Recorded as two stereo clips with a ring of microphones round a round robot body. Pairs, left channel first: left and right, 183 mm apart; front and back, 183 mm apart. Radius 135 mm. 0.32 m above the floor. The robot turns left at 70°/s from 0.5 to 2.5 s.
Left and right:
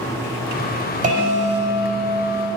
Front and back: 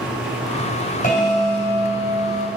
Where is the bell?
50° right, 2.5 m; by 2.5 s 150° right, 2.5 m.